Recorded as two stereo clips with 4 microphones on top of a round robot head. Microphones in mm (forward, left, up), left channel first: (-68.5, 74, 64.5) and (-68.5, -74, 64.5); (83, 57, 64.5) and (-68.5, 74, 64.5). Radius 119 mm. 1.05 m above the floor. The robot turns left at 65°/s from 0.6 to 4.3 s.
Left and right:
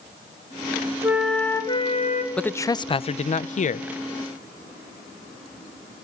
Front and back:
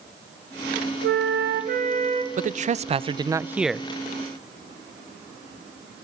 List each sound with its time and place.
1.0 s a flute: 165° right, 2.5 m; by 2.3 s 115° left, 2.5 m
2.4 s a man speaking: 170° left, 0.6 m; by 3.9 s 75° left, 0.6 m